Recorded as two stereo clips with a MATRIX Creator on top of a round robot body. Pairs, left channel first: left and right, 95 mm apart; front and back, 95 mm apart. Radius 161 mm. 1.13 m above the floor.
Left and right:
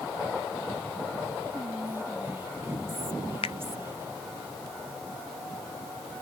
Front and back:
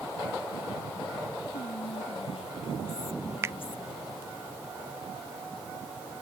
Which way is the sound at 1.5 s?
25° right.